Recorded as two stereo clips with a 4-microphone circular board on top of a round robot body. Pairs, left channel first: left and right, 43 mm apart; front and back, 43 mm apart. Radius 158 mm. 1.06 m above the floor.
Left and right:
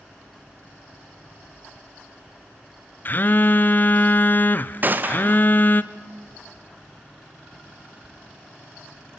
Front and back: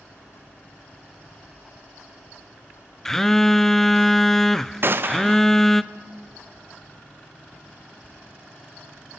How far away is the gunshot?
About 1.1 m.